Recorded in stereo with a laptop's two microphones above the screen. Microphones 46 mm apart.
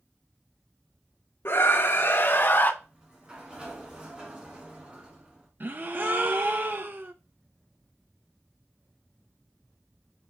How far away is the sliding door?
About 1.6 m.